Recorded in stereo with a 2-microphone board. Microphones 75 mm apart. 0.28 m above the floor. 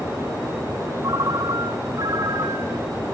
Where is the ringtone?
60° right (ahead or behind), 1.4 m.